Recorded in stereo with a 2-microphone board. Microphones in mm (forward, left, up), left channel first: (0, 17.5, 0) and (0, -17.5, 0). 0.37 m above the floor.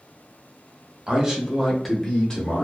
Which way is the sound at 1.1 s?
25° right (ahead or behind).